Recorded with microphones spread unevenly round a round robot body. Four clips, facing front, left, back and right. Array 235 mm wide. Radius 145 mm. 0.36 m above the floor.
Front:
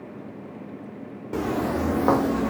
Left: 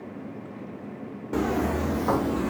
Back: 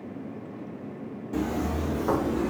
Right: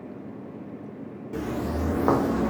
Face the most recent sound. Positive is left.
turn(degrees=-30)